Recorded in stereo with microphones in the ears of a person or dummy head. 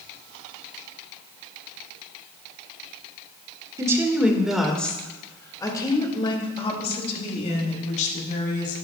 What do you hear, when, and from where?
3.8 s a woman speaking: 20° right (ahead or behind), 1.5 m; by 8.8 s 40° left (ahead or behind), 3.5 m